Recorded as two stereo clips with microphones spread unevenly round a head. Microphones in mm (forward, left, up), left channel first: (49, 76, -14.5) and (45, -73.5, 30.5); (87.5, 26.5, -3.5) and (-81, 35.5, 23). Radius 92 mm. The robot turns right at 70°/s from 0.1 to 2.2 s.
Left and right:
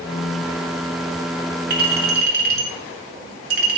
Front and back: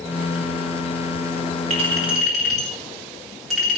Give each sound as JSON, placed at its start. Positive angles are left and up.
{"t": 1.7, "sound": "a clink", "azimuth_deg": -130, "distance_m": 3.5}